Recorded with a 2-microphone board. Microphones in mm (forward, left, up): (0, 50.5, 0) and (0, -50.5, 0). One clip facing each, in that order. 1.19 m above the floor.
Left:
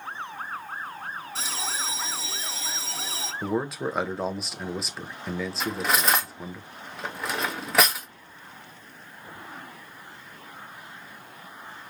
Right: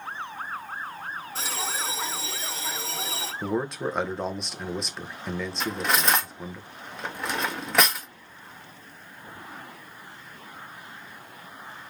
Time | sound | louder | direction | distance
1.4 | a bell | right 3 dB | 50° right (ahead or behind) | 1.3 m
3.4 | a man speaking | even | 5° left (ahead or behind) | 0.5 m
5.6 | cutlery clinking | even | centre (ahead or behind) | 0.6 m